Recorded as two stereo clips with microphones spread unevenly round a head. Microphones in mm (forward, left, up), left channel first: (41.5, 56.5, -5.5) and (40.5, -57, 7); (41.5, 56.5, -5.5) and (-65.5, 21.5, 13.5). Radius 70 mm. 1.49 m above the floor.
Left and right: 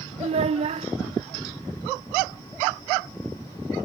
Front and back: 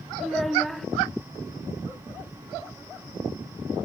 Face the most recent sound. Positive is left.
turn(degrees=-75)